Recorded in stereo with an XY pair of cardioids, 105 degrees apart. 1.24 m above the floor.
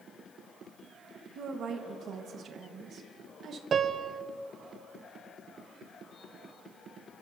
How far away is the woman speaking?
About 1.3 m.